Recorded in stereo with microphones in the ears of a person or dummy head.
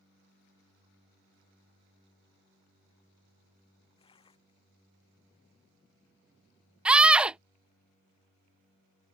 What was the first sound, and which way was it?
Tearing paper, 35° left (ahead or behind).